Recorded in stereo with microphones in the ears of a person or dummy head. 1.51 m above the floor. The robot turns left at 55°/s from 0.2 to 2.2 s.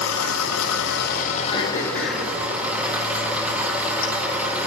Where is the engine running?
105° left, 1.4 m; by 4.7 s 5° right, 1.4 m.